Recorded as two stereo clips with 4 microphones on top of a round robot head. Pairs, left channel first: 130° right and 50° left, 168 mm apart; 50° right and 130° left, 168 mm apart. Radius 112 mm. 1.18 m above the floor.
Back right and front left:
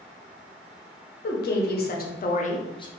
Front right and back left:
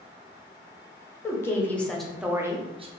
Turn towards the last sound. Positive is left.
turn(degrees=170)